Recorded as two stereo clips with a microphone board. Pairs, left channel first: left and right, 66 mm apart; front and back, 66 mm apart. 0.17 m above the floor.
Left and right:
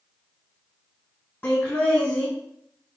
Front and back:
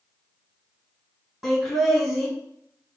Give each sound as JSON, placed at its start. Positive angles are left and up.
{"t": 1.4, "sound": "laughter", "azimuth_deg": 105, "distance_m": 1.3}